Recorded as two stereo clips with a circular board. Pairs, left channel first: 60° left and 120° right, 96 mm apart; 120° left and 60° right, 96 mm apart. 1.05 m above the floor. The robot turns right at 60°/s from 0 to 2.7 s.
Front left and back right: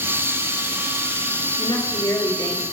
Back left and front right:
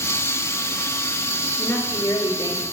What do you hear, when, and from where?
1.6 s a woman speaking: 45° left, 2 m; by 2.6 s 105° left, 2 m